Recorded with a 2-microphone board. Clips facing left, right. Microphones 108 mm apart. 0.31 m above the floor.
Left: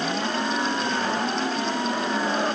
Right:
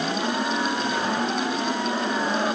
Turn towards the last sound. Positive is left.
No sound to turn to.